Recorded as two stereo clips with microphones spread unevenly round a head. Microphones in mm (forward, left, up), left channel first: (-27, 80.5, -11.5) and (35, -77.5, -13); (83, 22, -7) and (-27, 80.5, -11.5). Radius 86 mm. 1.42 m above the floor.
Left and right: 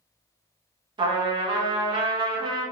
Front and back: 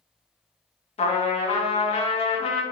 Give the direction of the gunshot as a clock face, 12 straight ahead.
I don't hear a gunshot.